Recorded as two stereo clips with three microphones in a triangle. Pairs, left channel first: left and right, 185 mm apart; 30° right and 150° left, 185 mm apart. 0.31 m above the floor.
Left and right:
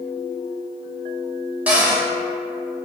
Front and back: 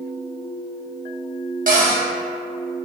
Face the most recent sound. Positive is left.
turn(degrees=-170)